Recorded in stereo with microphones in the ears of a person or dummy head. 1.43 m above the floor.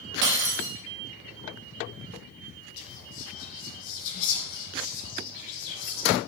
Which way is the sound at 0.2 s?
55° right (ahead or behind).